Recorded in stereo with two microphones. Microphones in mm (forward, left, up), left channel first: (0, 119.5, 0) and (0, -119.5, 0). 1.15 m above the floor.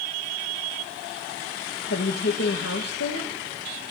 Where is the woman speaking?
65° left (ahead or behind), 1.6 m.